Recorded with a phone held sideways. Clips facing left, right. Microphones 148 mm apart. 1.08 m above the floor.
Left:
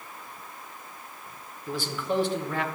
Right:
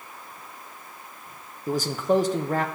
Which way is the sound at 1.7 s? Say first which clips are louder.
Right 7 dB; 40° right (ahead or behind).